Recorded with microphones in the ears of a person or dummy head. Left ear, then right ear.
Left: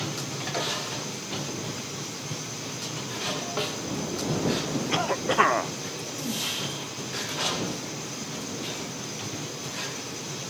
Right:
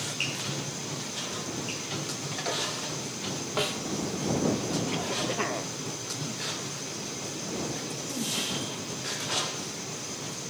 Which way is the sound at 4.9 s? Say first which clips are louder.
Left 5 dB; 55° left (ahead or behind).